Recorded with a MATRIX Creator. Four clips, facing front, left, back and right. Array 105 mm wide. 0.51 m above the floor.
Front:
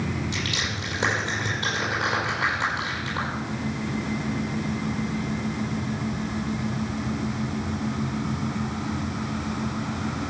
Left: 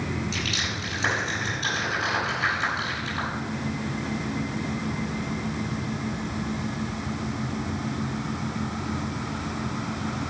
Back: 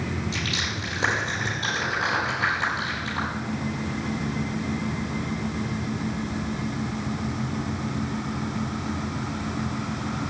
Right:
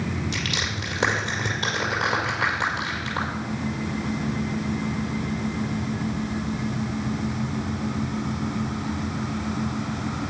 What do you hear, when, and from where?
0.3 s crushing: 75° right, 5 m